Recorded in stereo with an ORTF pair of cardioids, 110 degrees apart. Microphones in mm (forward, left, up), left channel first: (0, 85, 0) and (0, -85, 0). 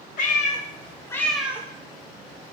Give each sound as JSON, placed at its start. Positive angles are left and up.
{"t": 0.2, "sound": "a cat meowing", "azimuth_deg": 55, "distance_m": 0.8}